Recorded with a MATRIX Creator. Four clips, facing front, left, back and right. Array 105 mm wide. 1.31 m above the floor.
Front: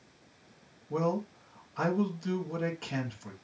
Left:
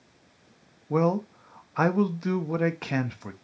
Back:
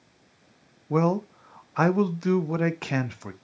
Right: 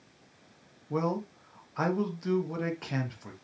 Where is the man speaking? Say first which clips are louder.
Left 6 dB, back 7 dB; 150° left, 0.5 m.